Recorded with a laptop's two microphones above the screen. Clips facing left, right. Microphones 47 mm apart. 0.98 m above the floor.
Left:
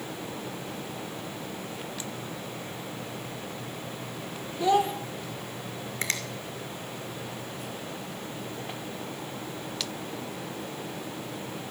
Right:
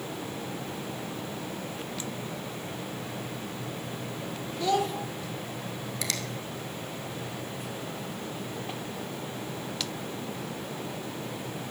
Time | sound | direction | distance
4.6 | a child speaking | 25° left (ahead or behind) | 2.5 m
6.0 | a finger snap | 40° left (ahead or behind) | 2.5 m